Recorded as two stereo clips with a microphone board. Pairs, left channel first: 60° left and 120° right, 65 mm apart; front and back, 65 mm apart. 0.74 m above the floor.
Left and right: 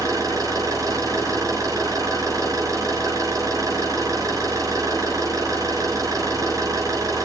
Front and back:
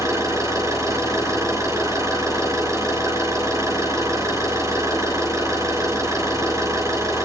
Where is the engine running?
150° right, 7.5 m.